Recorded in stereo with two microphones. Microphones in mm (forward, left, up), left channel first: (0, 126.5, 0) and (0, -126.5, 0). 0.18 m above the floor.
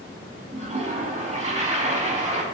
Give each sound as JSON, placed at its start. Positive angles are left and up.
{"t": 0.5, "sound": "a toilet flushing", "side_deg": -30, "distance_m": 0.7}